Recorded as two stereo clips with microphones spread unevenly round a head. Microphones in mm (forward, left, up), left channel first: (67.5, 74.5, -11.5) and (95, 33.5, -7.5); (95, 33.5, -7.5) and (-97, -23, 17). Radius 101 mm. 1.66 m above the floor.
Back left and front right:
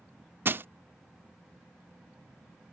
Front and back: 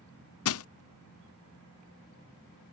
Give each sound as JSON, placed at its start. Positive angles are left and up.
{"t": 0.5, "sound": "crushing", "azimuth_deg": -5}